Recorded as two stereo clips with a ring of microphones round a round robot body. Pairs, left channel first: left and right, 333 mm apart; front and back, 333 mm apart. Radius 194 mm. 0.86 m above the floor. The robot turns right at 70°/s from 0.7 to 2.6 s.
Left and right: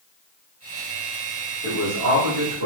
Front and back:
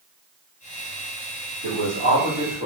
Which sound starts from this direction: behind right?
A man speaking, at 1.6 s.